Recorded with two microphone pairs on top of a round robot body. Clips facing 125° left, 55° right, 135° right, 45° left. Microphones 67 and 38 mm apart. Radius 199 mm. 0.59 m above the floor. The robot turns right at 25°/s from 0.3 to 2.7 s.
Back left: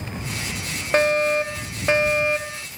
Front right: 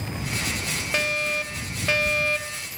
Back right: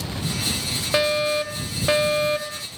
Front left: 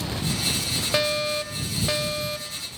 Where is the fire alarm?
145° left; by 2.7 s 170° right.